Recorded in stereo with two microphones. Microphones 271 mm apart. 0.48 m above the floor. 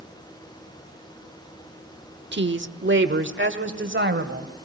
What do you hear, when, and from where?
2.3 s a woman speaking: 40° right (ahead or behind), 1.0 m